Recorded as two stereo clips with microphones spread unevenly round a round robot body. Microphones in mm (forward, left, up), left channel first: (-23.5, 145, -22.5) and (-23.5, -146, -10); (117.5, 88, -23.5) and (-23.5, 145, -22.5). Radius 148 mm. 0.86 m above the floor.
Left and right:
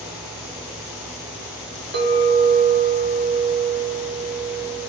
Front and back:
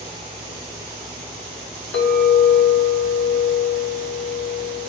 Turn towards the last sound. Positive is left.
turn(degrees=-30)